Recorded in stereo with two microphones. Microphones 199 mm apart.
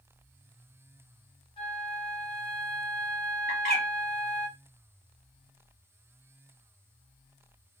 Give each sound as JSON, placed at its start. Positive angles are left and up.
{"t": 1.6, "sound": "a flute", "side_deg": 25, "distance_m": 0.9}
{"t": 3.5, "sound": "a bird", "side_deg": 45, "distance_m": 2.0}